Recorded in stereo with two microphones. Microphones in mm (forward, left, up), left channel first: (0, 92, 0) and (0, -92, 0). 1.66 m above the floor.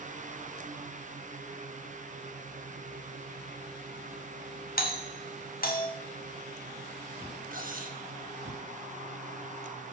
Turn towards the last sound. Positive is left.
turn(degrees=-45)  # may be behind; listen again after turning